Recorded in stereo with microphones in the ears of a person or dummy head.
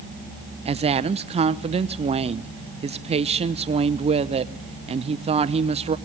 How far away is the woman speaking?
About 0.9 m.